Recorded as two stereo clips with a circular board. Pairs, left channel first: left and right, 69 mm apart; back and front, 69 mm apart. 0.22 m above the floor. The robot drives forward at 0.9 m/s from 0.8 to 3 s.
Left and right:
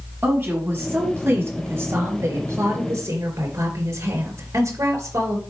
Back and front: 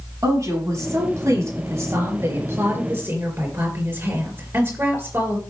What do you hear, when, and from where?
0.2 s a woman speaking: 30° right, 5 m; by 5.4 s 50° right, 3.5 m